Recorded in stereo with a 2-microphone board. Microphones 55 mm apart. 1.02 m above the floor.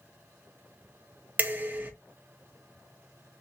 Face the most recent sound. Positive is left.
turn(degrees=-30)  # may be behind; listen again after turning